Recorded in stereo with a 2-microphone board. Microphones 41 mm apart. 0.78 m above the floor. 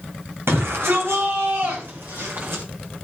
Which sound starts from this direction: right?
A shout, at 0.5 s.